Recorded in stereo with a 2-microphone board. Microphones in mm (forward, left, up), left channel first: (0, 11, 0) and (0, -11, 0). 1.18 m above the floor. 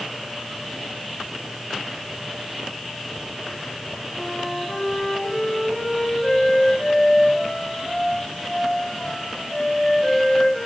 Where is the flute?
35° left (ahead or behind), 6.5 m.